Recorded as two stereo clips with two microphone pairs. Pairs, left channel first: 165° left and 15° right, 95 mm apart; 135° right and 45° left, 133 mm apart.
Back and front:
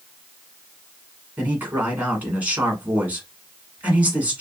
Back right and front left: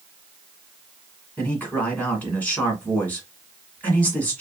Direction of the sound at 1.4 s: 65° right.